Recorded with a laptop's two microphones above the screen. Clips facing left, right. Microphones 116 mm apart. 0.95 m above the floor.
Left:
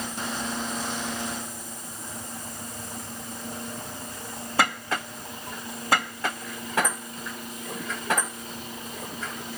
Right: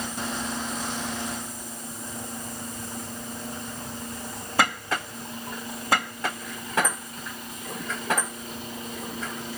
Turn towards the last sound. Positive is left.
No sound to turn to.